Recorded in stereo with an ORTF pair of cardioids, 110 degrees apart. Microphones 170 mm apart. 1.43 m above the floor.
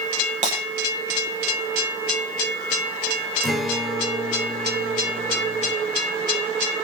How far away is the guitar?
About 3 m.